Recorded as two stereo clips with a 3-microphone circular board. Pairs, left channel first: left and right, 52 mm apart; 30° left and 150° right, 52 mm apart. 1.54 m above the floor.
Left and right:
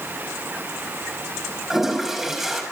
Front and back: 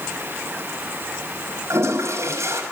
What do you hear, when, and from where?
1.7 s a toilet flushing: 175° right, 5.5 m